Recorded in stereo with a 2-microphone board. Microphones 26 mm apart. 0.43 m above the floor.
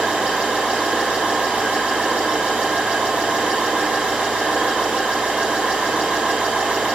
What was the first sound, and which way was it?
An engine running, 60° right (ahead or behind).